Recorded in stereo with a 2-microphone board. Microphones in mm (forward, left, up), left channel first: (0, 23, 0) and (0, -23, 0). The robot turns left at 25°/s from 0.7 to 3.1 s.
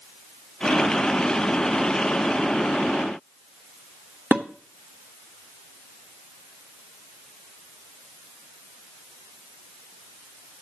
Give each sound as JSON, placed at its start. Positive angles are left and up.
{"t": 4.3, "sound": "dishes clattering", "side_deg": -40, "distance_m": 1.3}